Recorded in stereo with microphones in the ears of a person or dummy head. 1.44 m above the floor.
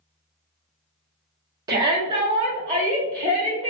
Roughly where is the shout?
Right.